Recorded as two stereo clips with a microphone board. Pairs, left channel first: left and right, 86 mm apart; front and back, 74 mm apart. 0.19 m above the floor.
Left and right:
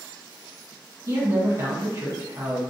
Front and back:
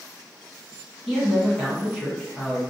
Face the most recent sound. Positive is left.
turn(degrees=-85)